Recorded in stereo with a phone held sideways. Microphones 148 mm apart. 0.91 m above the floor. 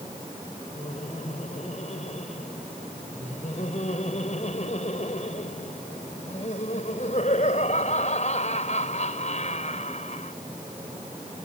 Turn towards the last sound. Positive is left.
turn(degrees=50)  # may be behind; listen again after turning